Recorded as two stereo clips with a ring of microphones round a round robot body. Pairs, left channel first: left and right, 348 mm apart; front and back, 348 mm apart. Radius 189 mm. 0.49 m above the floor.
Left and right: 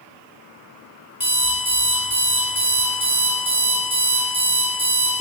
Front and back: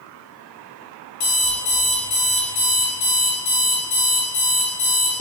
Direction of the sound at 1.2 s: 5° right.